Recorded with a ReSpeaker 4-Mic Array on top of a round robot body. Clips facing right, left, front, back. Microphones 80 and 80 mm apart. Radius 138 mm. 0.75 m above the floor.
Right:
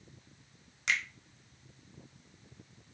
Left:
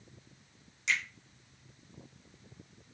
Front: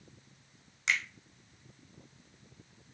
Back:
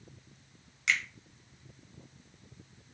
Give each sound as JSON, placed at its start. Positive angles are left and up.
{"t": 0.9, "sound": "a finger snap", "azimuth_deg": -60, "distance_m": 1.0}